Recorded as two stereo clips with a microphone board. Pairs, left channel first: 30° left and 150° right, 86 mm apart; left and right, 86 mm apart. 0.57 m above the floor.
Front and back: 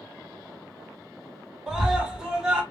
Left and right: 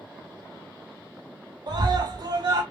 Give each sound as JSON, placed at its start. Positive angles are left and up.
{"t": 1.7, "sound": "a scream", "azimuth_deg": -70, "distance_m": 1.4}